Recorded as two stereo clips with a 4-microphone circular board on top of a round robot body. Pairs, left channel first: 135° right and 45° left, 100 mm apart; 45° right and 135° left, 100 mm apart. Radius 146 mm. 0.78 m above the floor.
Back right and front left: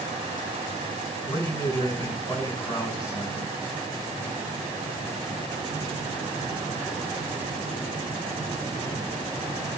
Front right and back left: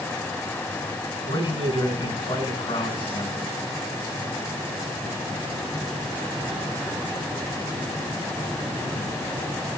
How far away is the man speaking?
About 8 m.